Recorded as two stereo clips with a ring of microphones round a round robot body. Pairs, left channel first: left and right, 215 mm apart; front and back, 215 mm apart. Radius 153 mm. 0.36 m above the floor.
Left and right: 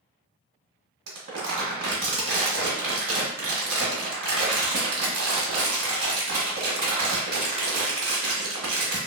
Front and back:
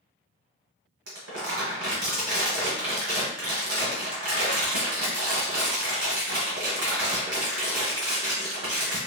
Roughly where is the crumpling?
Behind right.